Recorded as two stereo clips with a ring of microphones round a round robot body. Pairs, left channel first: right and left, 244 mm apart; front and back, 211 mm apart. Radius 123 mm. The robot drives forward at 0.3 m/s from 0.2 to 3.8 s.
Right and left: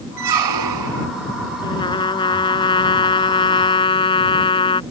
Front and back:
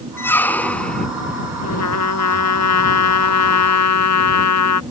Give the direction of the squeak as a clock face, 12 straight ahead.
9 o'clock.